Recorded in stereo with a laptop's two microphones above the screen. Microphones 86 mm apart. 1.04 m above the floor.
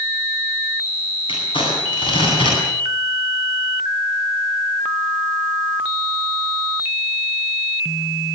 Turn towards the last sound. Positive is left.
turn(degrees=80)